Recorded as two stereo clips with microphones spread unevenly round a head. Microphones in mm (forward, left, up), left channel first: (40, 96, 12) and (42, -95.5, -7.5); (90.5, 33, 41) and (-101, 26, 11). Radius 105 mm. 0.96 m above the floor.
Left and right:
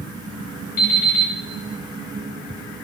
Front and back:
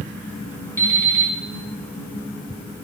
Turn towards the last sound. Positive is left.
turn(degrees=80)